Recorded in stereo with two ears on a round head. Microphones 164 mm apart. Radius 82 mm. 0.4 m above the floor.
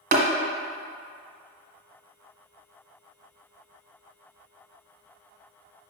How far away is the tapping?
About 1.1 m.